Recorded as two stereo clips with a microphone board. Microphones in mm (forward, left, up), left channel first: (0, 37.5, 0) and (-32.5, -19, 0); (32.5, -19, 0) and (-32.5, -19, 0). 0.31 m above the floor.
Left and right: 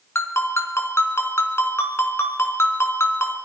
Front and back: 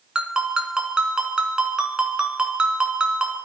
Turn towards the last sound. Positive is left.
turn(degrees=105)